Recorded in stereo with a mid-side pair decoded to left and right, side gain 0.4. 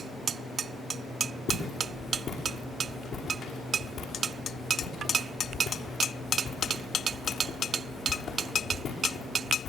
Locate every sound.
1.5 s footsteps: 65° left, 5.5 m